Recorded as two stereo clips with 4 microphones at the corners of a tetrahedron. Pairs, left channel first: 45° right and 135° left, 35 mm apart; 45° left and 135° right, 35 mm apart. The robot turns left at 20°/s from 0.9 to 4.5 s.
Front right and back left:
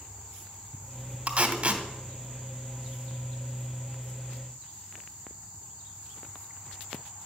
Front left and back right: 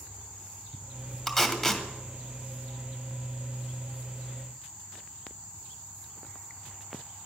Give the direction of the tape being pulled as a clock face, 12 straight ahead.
8 o'clock.